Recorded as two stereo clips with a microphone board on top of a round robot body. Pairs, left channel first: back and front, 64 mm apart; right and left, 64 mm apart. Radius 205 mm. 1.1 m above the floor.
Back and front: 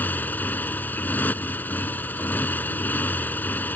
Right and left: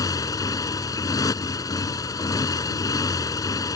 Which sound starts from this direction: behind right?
A motorcycle, at 0.0 s.